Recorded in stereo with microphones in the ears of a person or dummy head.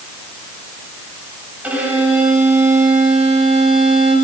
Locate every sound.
1.6 s a violin: 5° right (ahead or behind), 7 m